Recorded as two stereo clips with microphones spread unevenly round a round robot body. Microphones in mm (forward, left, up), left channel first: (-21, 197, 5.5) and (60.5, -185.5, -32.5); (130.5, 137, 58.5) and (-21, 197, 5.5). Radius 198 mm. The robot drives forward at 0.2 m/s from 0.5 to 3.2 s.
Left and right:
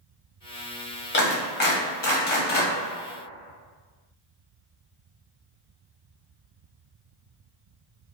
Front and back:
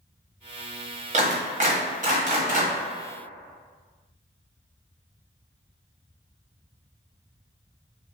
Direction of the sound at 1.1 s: 170° left.